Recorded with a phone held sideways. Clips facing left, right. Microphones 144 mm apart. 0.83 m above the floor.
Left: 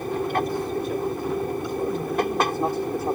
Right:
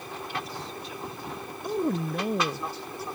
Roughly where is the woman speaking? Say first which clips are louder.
Left 2 dB; right.